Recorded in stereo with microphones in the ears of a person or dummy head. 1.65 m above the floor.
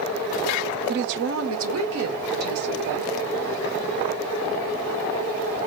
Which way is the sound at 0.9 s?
55° right (ahead or behind).